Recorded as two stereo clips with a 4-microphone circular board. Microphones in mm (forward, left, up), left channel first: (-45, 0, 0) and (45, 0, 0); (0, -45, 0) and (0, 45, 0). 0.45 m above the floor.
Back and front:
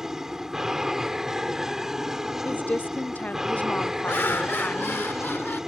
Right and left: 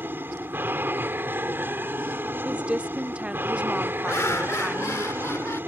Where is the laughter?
130° right.